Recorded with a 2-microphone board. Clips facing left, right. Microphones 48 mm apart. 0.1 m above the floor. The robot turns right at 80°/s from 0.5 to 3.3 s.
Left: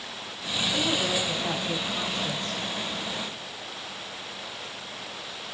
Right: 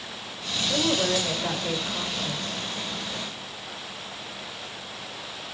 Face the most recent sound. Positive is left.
turn(degrees=75)